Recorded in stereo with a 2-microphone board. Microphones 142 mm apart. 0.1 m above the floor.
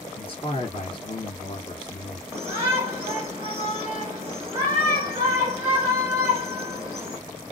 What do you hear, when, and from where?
0.2 s a man speaking: 40° left (ahead or behind), 2 m
2.3 s a shout: 20° right (ahead or behind), 1.5 m